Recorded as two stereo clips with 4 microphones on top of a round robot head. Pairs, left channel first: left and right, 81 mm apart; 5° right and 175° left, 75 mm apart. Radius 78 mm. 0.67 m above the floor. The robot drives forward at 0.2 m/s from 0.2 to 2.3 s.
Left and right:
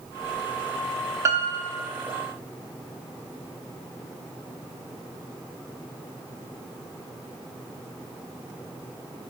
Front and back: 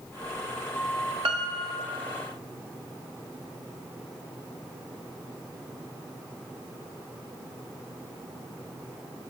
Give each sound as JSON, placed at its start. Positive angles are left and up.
{"t": 1.2, "sound": "a piano", "azimuth_deg": -140, "distance_m": 0.8}